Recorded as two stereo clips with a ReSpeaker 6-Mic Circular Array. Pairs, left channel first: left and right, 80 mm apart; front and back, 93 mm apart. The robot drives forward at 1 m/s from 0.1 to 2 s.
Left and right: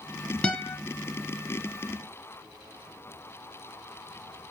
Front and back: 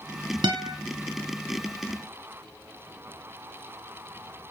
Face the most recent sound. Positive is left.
turn(degrees=170)